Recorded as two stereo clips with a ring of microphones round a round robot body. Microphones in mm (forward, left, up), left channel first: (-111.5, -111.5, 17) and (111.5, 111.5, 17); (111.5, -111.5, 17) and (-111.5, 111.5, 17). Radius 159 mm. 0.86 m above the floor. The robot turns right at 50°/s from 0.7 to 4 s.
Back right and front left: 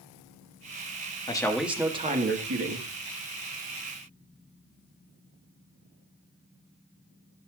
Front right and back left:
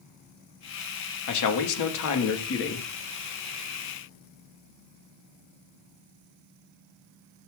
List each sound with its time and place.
1.3 s a man speaking: 60° right, 1.5 m; by 2.9 s 15° left, 1.5 m